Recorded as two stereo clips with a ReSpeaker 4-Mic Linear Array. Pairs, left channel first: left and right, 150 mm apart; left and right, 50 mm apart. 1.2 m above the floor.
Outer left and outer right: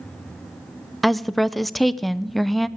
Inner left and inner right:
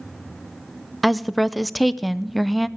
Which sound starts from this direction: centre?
A woman speaking, at 1.0 s.